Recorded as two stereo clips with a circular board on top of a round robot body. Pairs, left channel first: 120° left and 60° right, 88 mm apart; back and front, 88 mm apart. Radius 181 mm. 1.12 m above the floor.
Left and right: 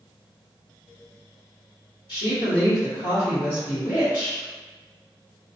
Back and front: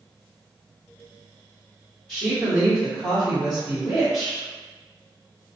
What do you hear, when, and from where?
2.1 s a woman speaking: 105° left, 1.3 m